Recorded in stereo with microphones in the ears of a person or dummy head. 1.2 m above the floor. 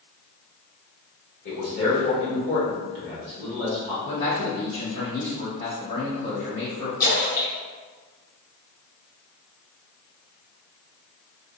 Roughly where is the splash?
Left.